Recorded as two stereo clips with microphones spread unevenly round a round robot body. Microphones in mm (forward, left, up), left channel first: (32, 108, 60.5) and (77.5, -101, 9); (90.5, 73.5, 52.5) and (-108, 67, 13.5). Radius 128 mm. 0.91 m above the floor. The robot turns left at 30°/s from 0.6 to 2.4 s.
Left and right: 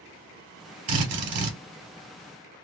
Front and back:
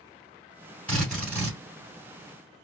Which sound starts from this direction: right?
A drill, at 0.9 s.